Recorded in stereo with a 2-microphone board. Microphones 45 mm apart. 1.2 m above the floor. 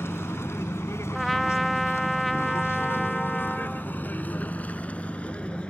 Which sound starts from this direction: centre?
A trumpet, at 1.1 s.